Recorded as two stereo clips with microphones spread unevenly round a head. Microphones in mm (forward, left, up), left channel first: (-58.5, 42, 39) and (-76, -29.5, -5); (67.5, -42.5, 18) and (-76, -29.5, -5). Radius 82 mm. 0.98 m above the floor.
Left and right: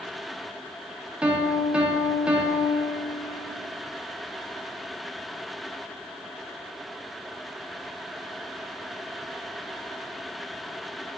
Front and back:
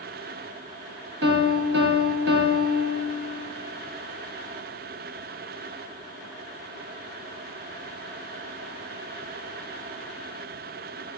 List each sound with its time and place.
1.2 s a piano: 160° left, 0.5 m